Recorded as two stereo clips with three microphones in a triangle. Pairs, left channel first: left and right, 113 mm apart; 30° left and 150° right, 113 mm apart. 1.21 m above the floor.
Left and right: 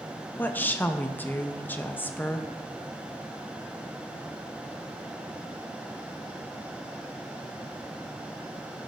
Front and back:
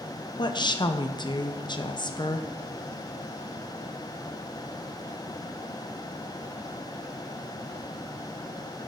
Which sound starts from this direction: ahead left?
A woman speaking, at 0.4 s.